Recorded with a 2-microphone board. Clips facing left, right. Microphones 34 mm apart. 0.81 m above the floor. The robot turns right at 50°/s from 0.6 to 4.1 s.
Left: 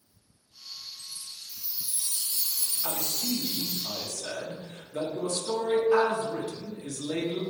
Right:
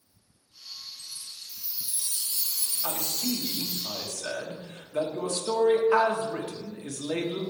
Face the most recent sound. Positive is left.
turn(degrees=-60)